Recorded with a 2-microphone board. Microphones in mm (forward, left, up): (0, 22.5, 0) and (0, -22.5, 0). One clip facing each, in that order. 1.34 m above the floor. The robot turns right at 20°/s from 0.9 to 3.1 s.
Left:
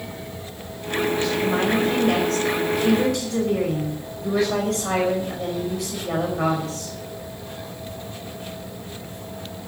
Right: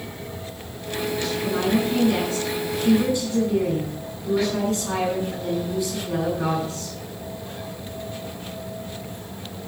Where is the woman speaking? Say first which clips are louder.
Even; 55° left, 5.5 m; by 7.0 s 90° left, 5.5 m.